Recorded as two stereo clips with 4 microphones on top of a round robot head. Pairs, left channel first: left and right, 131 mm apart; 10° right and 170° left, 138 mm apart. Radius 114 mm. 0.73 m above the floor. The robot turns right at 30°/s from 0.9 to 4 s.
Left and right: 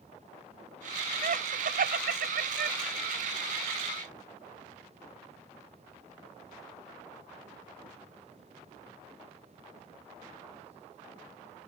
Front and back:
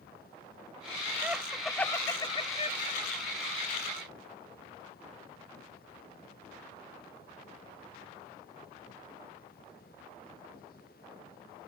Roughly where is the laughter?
Right.